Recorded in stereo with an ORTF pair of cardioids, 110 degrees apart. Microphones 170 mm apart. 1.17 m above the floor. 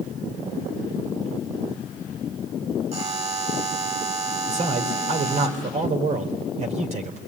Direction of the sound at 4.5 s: 40° right.